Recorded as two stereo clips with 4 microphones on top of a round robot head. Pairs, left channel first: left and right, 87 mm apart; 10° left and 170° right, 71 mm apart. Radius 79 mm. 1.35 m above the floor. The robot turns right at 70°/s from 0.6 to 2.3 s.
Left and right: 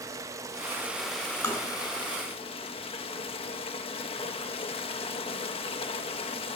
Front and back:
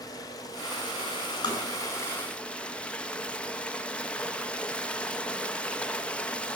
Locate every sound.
0.0 s running water: 35° right, 0.8 m; by 6.6 s 85° left, 0.8 m
1.4 s tapping: 35° left, 4.5 m; by 1.6 s 45° left, 4.5 m